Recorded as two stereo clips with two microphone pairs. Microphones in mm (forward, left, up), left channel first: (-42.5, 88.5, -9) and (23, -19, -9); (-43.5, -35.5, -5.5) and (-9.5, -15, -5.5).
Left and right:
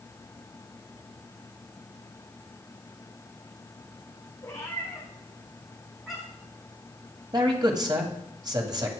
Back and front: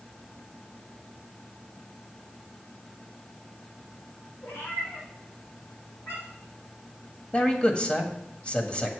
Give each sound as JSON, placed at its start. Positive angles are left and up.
{"t": 4.4, "sound": "a cat meowing", "azimuth_deg": -175, "distance_m": 5.0}
{"t": 7.3, "sound": "a man speaking", "azimuth_deg": -100, "distance_m": 1.8}